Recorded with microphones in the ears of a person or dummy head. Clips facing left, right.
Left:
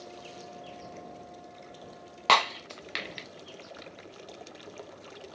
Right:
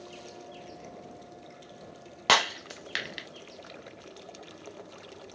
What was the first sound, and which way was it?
Breaking glass, 10° right (ahead or behind).